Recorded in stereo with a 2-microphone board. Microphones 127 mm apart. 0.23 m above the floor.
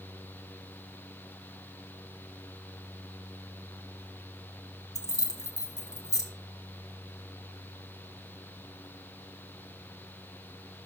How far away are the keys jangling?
About 1.3 m.